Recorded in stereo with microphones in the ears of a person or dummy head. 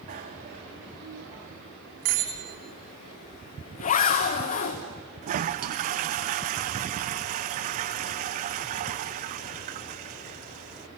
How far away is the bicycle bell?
About 2.5 m.